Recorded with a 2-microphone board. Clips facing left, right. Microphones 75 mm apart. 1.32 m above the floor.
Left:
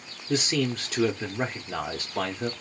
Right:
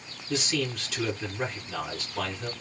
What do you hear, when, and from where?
0.3 s a man speaking: 40° left (ahead or behind), 0.6 m